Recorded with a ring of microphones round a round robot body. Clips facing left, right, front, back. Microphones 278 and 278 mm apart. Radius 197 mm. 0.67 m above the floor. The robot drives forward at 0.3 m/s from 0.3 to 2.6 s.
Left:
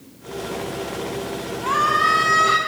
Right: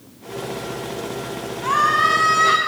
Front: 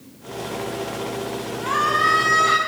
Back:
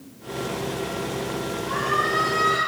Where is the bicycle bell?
I don't hear a bicycle bell.